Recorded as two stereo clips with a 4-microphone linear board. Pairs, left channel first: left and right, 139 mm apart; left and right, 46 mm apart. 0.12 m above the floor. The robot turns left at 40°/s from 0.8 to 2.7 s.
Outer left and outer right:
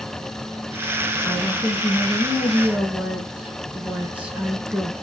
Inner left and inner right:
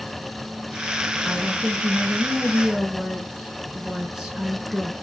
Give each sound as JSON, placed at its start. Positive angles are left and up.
{"t": 1.2, "sound": "a woman speaking", "side_deg": 10, "distance_m": 1.1}